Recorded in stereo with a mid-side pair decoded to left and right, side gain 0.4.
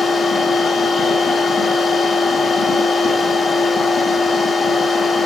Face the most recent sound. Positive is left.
turn(degrees=40)